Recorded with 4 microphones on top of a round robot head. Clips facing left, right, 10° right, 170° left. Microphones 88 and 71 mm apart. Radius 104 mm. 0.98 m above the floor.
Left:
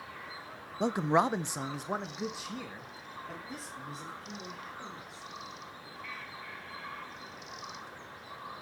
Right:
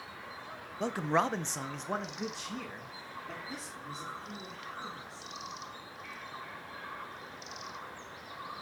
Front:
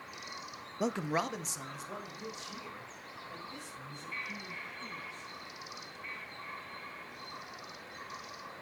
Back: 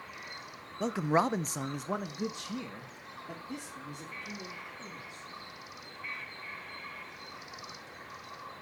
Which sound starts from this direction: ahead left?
A man speaking, at 0.8 s.